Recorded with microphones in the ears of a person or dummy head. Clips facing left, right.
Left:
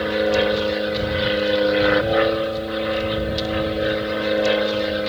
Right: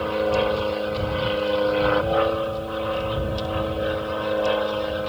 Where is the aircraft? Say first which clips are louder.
Left 3 dB; 20° left (ahead or behind); by 5.1 s 30° left (ahead or behind).